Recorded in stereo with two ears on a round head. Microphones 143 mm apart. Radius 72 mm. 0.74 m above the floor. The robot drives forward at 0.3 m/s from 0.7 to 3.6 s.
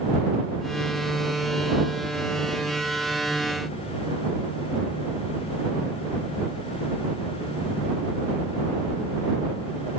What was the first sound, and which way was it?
Only background noise.